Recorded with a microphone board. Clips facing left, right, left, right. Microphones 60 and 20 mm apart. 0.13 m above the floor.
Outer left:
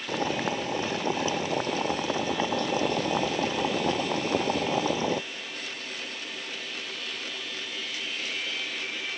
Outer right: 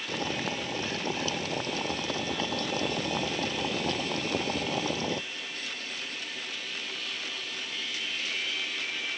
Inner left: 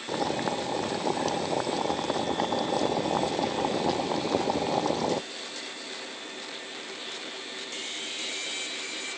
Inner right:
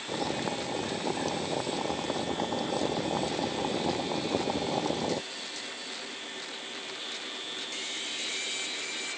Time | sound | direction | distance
0.1 | boiling | 20° left (ahead or behind) | ?